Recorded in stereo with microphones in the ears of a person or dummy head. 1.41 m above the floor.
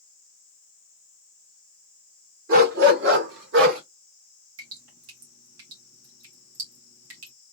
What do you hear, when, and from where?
2.5 s a dog barking: 55° right (ahead or behind), 1.9 m; by 3.8 s 60° right (ahead or behind), 1.6 m
4.6 s dripping: 85° right, 2 m